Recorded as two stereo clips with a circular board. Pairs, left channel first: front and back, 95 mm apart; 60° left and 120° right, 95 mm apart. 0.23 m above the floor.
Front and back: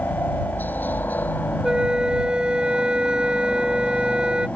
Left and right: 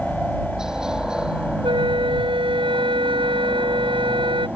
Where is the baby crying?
No baby crying in this recording.